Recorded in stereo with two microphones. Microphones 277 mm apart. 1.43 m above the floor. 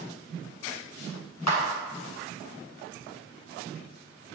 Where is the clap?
70° left (ahead or behind), 1.4 m.